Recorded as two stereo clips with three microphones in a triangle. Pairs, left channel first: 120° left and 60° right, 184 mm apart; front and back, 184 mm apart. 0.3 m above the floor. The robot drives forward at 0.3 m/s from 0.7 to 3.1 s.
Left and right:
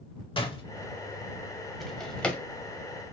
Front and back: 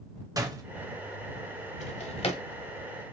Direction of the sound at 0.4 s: 135° left.